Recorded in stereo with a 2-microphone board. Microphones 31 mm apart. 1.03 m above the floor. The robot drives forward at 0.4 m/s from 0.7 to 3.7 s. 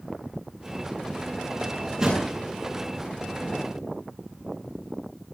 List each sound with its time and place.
1.5 s a drawer: 25° right (ahead or behind), 7.5 m; by 2.3 s 20° right (ahead or behind), 8 m